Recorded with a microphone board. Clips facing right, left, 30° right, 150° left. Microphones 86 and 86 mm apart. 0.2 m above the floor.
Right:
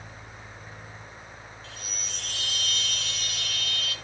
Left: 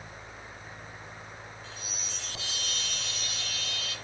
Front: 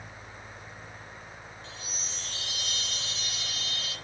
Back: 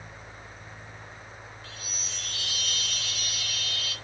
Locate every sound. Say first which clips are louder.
1.6 s a chime: right 1 dB, even; 85° right, 2.5 m